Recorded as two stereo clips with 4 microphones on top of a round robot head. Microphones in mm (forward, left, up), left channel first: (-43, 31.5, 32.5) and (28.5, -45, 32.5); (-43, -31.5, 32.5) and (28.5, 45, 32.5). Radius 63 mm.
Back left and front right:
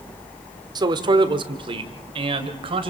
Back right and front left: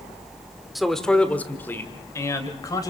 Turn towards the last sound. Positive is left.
turn(degrees=-75)